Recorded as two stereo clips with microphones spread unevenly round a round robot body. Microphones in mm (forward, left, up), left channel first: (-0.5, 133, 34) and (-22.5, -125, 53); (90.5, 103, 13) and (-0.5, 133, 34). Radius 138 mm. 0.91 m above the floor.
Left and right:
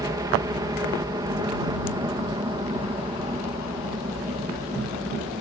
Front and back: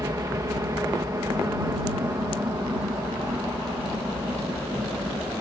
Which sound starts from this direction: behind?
A helicopter, at 0.0 s.